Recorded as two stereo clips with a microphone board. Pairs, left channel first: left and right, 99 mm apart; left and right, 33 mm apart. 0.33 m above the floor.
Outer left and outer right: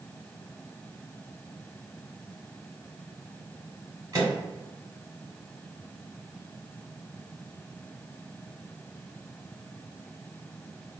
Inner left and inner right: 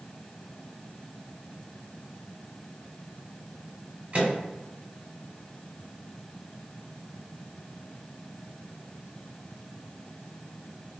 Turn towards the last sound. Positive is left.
turn(degrees=-40)  # may be behind; listen again after turning